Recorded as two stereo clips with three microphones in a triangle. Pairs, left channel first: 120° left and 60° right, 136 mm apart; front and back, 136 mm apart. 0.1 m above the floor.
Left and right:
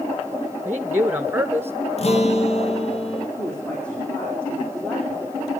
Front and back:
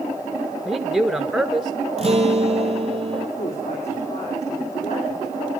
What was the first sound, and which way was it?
A man speaking, 100° right.